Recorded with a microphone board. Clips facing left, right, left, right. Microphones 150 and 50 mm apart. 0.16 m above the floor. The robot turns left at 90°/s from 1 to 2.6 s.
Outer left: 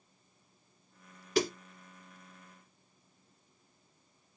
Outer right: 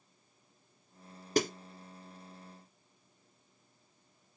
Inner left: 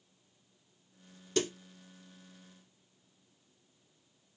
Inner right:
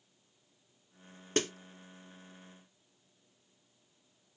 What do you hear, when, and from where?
1.4 s a snare drum: 45° right (ahead or behind), 1.8 m; by 1.5 s 50° right (ahead or behind), 1.8 m